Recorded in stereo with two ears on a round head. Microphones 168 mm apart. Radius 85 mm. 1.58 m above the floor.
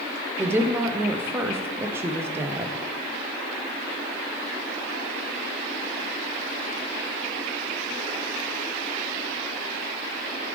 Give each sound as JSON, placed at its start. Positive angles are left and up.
{"t": 0.4, "sound": "a woman speaking", "side_deg": -15, "distance_m": 0.6}